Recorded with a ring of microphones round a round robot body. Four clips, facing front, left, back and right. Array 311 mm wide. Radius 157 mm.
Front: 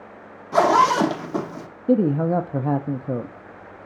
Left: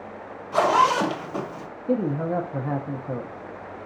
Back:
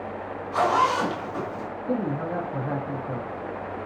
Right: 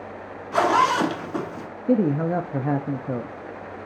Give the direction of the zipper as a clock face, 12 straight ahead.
1 o'clock.